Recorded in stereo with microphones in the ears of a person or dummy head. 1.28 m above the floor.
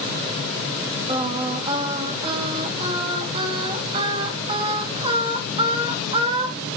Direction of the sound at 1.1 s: 25° right (ahead or behind).